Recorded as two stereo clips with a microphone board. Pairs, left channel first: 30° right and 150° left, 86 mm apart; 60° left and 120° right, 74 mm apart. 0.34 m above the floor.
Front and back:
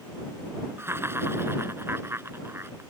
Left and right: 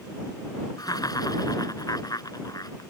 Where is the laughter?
90° left.